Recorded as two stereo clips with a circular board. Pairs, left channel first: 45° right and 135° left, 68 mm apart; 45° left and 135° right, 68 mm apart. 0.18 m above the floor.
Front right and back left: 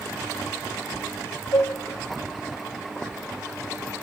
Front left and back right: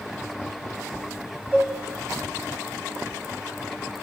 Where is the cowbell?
65° right, 3.5 m.